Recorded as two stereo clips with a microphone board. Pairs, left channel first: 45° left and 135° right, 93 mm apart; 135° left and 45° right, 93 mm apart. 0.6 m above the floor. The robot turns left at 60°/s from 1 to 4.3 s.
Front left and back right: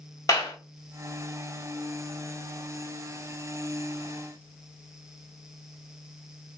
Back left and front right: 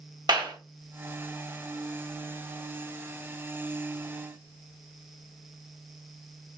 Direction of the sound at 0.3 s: 5° right.